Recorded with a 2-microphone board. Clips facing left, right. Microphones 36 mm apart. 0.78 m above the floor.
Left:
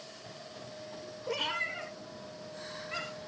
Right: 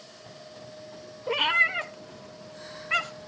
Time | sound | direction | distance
1.3 | a cat meowing | 35° right (ahead or behind) | 1.1 m